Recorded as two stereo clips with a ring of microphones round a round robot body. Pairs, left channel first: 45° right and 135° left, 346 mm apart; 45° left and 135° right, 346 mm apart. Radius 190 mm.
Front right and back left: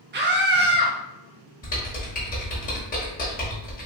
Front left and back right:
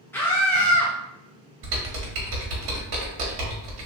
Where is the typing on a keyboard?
115° right, 1.1 m.